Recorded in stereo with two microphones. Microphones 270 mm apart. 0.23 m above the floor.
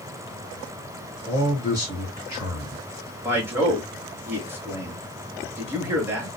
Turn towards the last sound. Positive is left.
turn(degrees=-10)  # may be behind; listen again after turning